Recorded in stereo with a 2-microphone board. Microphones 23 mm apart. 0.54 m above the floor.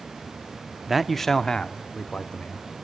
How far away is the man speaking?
About 0.6 m.